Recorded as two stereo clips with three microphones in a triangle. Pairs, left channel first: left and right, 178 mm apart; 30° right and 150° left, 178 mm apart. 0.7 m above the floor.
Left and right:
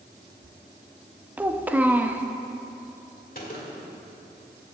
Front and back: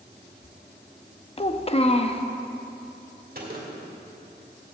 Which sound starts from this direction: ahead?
A child speaking, at 1.4 s.